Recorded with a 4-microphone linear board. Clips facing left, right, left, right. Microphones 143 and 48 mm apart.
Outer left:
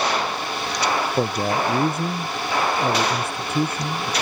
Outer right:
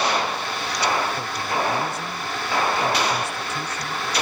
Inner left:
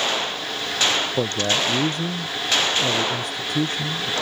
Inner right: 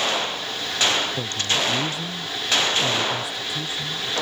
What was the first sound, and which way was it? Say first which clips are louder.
A man speaking: outer left 5 dB, inner left 3 dB; 55° left (ahead or behind).